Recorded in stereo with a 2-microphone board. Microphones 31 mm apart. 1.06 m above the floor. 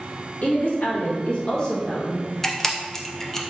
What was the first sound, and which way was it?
A woman speaking, 60° left (ahead or behind).